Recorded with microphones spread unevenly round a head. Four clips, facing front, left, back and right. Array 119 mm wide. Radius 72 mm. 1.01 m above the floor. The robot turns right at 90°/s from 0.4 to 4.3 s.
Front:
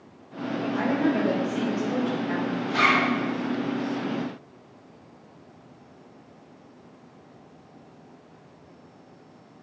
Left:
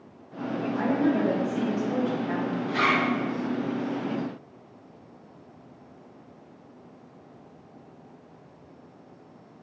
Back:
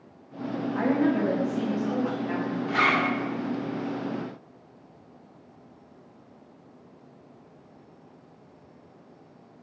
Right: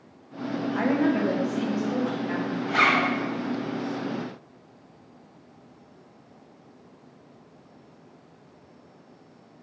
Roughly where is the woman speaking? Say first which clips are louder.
Right 1 dB, back 1 dB; ahead right.